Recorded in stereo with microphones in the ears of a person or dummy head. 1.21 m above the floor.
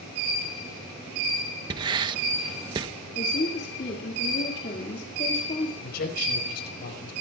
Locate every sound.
1.7 s writing: 25° right (ahead or behind), 1.0 m
3.1 s a woman speaking: 40° left (ahead or behind), 2.5 m
5.8 s a man speaking: 60° left (ahead or behind), 5.5 m